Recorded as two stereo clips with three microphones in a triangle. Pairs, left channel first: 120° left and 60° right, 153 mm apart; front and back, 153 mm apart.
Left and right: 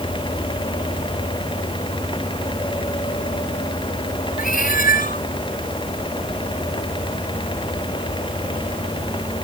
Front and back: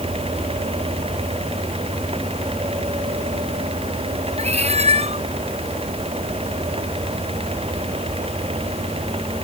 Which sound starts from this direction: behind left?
A cat meowing, at 4.4 s.